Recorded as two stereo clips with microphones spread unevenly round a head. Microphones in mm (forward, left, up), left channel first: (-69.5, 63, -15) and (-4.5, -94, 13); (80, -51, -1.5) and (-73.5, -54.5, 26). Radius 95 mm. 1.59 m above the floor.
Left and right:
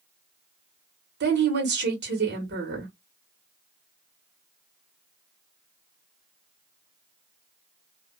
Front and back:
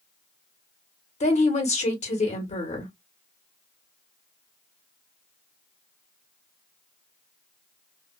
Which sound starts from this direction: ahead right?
A woman speaking, at 1.2 s.